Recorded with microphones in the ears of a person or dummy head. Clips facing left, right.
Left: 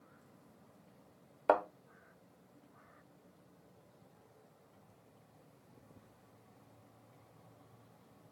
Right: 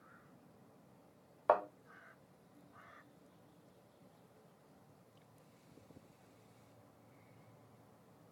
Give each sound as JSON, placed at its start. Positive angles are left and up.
{"t": 1.5, "sound": "a thud", "side_deg": 35, "distance_m": 1.0}